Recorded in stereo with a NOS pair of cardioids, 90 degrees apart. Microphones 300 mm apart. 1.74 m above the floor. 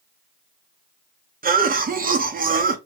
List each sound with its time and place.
1.4 s a cough: 30° right, 0.8 m